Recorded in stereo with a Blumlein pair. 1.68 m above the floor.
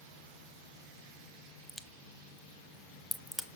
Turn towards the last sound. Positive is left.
turn(degrees=0)